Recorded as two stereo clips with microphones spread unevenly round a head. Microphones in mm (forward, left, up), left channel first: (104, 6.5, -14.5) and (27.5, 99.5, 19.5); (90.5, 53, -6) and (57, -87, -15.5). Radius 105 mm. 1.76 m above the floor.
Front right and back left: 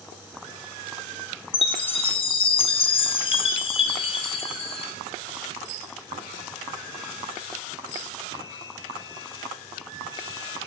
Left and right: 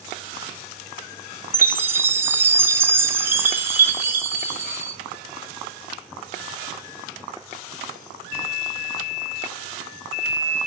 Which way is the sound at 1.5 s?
40° right.